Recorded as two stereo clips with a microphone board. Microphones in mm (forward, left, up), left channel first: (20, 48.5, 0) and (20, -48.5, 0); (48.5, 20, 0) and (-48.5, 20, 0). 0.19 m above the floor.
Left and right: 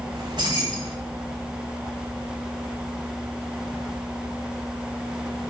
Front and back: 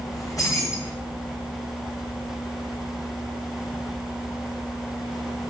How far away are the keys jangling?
About 9.5 m.